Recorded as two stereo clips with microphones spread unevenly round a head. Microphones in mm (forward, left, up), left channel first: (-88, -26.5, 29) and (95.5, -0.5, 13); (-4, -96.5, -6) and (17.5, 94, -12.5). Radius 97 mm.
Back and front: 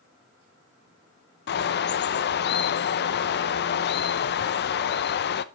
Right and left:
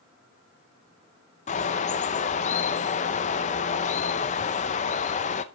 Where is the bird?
150° right, 0.7 m.